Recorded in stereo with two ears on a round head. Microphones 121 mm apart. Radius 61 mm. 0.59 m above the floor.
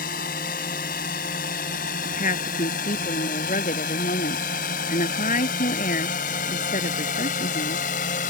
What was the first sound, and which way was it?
A drone, 70° left (ahead or behind).